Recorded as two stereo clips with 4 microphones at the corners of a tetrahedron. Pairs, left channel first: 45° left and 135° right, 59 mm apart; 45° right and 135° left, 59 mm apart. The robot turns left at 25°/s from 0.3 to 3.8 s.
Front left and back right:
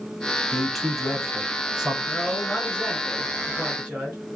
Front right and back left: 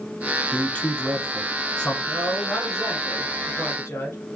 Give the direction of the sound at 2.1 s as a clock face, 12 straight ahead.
1 o'clock.